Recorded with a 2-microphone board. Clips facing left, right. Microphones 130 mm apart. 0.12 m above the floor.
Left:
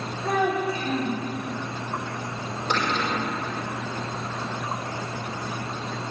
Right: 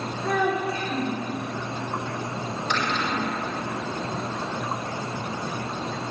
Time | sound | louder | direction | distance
0.2 | a child speaking | left 1 dB | 30° left (ahead or behind) | 5 m
2.7 | a cupboard door | left 2 dB | 55° left (ahead or behind) | 4.5 m